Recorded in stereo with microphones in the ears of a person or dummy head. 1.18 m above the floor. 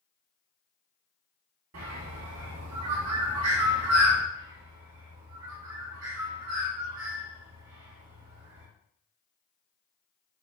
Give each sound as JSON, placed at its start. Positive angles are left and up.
{"t": 1.7, "sound": "a bird", "side_deg": -80, "distance_m": 1.3}
{"t": 4.3, "sound": "a bird", "side_deg": -65, "distance_m": 1.7}